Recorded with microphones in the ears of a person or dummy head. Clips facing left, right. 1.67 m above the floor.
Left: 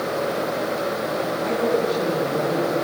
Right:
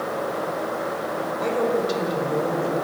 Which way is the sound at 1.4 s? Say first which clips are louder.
Even; 85° right.